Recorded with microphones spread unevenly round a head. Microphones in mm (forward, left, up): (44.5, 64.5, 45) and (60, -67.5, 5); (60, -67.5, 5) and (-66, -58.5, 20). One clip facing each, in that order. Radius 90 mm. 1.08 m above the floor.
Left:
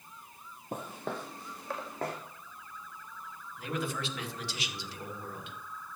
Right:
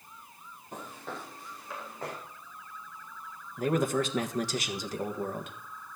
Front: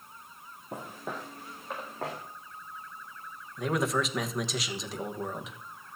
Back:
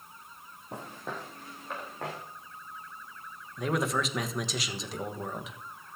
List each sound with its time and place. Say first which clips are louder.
0.7 s footsteps: left 4 dB, front 1 dB; 85° left, 2.5 m
3.6 s a man speaking: right 9 dB, front 1 dB; 90° right, 1.4 m